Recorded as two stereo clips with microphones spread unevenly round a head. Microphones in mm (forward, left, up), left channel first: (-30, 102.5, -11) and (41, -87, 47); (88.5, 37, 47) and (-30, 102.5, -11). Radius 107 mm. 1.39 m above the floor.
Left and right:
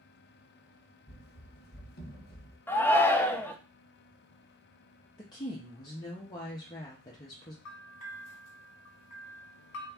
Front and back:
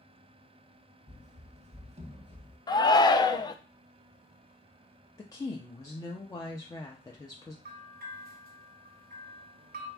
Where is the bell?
145° left, 1.3 m.